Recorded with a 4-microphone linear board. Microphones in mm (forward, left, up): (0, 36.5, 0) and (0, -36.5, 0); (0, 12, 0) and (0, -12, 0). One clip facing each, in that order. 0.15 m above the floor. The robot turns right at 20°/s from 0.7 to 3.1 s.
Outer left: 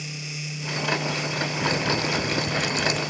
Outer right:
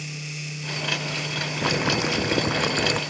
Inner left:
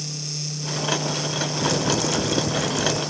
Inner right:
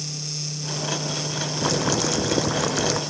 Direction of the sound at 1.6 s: 15° right (ahead or behind).